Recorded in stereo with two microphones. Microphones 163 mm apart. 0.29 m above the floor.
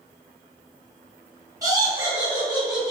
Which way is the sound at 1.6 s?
25° right (ahead or behind).